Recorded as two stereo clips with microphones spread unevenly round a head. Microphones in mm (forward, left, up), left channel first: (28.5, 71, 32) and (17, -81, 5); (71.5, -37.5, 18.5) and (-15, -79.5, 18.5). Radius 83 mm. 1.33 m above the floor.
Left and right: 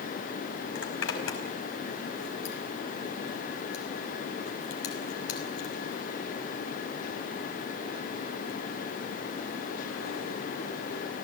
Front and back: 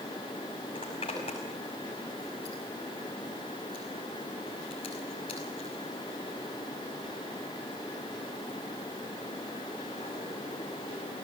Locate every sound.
0.8 s a zipper: 85° left, 5.5 m